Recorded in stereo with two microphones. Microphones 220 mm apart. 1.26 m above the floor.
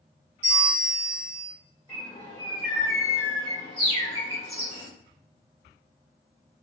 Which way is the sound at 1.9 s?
25° left (ahead or behind).